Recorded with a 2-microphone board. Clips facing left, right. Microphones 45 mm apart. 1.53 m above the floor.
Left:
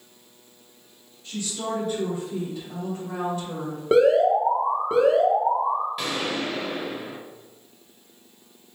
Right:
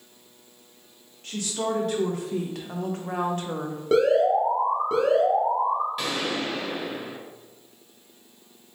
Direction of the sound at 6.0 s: 5° left (ahead or behind).